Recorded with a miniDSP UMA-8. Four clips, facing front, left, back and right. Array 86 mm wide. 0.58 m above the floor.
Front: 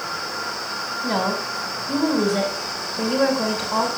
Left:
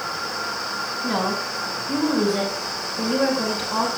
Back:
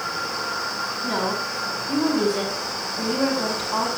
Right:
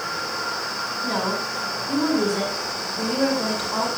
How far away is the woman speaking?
About 4 m.